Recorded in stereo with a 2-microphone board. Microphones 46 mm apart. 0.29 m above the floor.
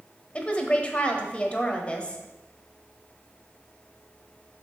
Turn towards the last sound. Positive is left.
turn(degrees=25)  # may be behind; listen again after turning